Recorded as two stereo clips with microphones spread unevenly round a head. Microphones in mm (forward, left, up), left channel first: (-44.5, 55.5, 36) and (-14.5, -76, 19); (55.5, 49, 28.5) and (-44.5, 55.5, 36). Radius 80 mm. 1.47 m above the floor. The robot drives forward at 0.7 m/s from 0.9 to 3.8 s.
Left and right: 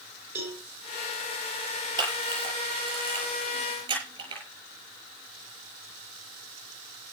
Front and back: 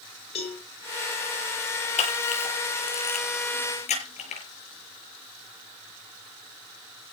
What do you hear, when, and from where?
0.3 s a cowbell: straight ahead, 5.5 m
2.0 s a camera shutter: 10° right, 7.5 m; by 4.4 s 15° right, 6.5 m